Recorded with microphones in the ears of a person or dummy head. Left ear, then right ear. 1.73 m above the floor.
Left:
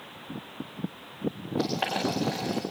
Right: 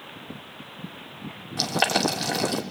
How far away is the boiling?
About 3 m.